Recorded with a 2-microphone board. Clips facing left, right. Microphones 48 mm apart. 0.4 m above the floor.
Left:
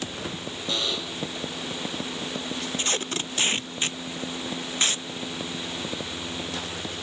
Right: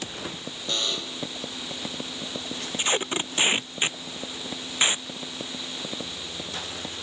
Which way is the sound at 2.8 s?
15° right (ahead or behind).